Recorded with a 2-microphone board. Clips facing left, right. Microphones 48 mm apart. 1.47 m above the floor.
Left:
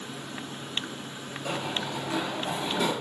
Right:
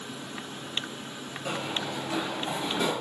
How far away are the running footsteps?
About 1.9 m.